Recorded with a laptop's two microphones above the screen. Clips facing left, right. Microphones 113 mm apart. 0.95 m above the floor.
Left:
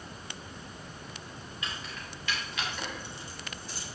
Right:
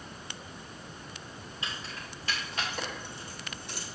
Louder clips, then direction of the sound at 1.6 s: Even; 30° right (ahead or behind).